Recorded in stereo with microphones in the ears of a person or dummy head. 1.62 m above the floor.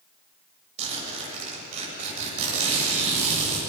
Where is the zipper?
40° right (ahead or behind), 8 m.